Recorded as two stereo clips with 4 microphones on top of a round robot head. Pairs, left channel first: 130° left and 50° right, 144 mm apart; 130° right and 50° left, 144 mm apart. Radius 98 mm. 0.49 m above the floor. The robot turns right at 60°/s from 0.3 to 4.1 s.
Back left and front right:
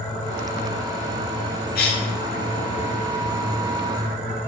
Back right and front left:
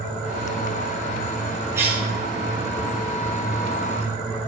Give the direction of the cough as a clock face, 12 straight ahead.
8 o'clock.